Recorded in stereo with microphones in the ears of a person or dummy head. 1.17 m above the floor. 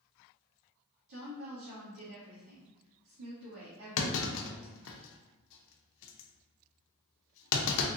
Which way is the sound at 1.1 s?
75° right (ahead or behind).